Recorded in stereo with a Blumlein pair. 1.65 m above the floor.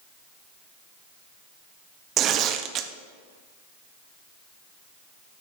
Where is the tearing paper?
30° right, 0.6 m.